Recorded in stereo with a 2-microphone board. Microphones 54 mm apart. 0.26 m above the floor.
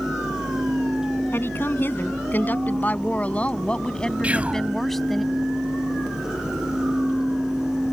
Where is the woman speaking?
45° left (ahead or behind); by 5.2 s centre (ahead or behind).